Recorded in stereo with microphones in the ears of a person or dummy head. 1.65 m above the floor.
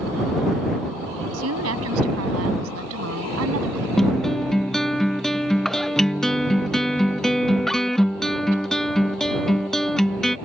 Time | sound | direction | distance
1.3 | a woman speaking | 85° right | ?
4.0 | a guitar | centre (ahead or behind) | ?